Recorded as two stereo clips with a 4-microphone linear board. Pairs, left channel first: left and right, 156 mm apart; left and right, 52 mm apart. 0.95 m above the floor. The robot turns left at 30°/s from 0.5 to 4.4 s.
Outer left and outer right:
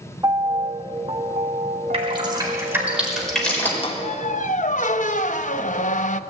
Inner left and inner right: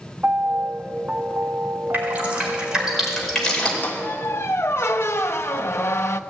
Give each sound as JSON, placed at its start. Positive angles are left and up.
{"t": 0.2, "sound": "a piano", "azimuth_deg": -20, "distance_m": 0.6}
{"t": 1.9, "sound": "dripping", "side_deg": -40, "distance_m": 5.0}
{"t": 3.8, "sound": "a squeak", "side_deg": 35, "distance_m": 0.7}